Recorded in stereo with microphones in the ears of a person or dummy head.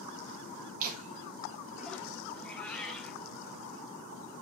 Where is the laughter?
45° right (ahead or behind), 1.0 m; by 2.1 s 10° left (ahead or behind), 0.9 m.